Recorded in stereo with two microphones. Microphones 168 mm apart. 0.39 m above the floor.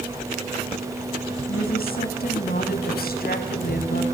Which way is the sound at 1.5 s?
65° left (ahead or behind).